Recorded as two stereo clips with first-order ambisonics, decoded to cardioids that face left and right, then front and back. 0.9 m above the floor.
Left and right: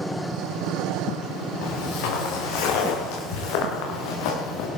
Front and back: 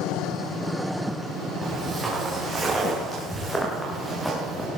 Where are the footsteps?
90° left, 8.5 m.